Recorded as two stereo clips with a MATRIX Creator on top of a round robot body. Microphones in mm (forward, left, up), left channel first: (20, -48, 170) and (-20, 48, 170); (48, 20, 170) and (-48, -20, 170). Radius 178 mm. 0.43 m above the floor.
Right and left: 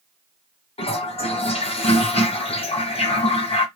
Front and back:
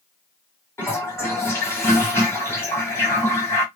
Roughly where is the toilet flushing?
Ahead right.